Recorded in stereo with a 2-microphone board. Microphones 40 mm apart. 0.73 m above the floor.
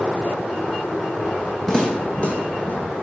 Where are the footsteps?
15° left (ahead or behind), 2 m; by 2.8 s 50° left (ahead or behind), 2 m.